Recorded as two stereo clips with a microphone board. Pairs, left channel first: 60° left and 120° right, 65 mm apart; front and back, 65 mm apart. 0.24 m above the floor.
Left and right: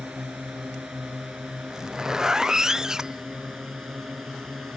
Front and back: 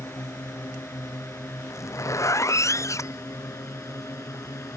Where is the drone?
35° right; by 4.8 s 30° right.